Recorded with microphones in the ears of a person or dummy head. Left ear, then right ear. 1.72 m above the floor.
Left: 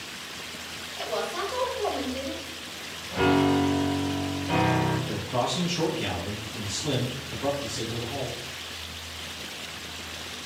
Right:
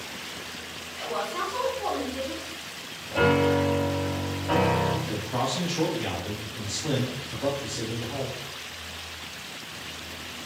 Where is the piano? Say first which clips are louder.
Right 1 dB; 20° right (ahead or behind), 0.6 m.